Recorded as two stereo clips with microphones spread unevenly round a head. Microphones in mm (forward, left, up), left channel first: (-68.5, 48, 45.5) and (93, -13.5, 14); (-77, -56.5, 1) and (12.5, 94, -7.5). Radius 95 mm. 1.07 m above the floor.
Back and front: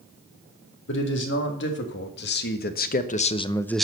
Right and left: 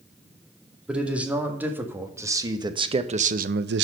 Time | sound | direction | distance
0.9 | a man speaking | 145° left | 2 m